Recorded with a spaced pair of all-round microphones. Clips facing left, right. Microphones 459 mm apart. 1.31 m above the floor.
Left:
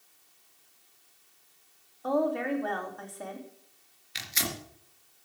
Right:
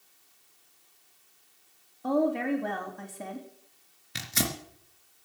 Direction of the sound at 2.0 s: 40° right (ahead or behind).